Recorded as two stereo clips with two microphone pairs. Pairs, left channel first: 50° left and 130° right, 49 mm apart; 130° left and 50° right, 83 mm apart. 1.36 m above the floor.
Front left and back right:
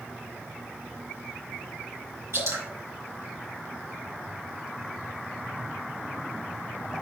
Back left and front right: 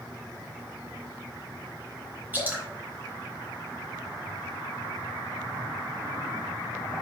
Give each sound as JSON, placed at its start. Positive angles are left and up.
{"t": 2.3, "sound": "dripping", "azimuth_deg": -120, "distance_m": 3.5}